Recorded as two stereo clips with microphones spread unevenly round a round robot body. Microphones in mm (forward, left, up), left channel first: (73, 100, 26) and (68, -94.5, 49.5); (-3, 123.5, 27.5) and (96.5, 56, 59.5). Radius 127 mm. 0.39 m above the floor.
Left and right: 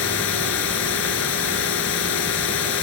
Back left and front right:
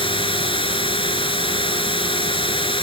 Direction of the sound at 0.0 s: 105° left.